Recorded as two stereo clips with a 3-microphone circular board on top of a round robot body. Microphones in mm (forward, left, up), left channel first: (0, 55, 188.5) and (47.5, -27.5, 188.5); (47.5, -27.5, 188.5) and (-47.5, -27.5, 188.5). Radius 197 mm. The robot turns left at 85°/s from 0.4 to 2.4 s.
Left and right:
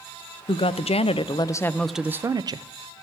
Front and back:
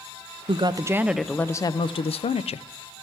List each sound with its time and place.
0.5 s a woman speaking: 150° left, 0.5 m; by 2.7 s 10° right, 0.5 m